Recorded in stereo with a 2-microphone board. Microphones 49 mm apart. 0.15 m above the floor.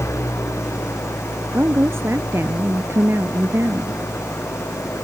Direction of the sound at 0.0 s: 80° left.